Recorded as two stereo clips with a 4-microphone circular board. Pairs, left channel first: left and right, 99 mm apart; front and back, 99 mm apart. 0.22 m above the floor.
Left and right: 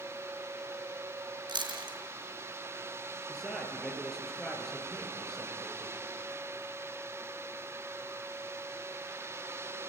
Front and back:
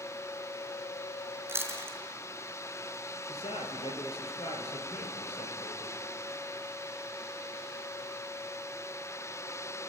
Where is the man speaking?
Straight ahead, 4 m.